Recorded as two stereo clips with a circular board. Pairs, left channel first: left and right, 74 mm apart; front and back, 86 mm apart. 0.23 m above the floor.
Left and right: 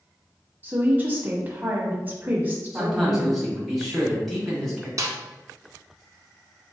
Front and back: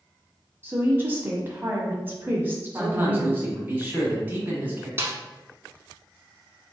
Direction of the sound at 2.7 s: 175° left.